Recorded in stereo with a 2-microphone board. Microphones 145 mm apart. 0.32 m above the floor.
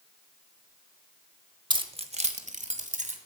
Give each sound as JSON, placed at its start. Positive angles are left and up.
{"t": 1.7, "sound": "keys jangling", "side_deg": -30, "distance_m": 0.8}